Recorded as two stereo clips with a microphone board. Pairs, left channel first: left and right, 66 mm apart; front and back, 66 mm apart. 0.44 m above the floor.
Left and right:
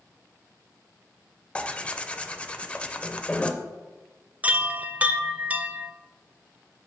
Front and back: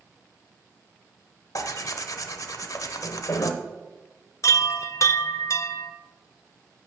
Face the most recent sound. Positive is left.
turn(degrees=-25)